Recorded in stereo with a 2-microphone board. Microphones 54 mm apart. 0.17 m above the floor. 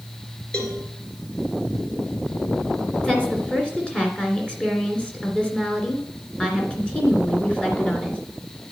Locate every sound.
0.5 s a cowbell: 20° left (ahead or behind), 2.5 m
3.0 s a woman speaking: 20° left (ahead or behind), 2.5 m